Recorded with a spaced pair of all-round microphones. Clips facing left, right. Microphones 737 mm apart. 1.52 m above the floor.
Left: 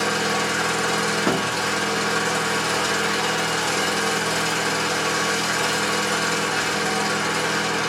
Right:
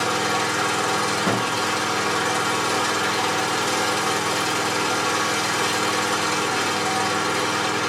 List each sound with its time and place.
0.0 s an engine running: 30° right (ahead or behind), 5 m
1.3 s a thud: 30° right (ahead or behind), 3.5 m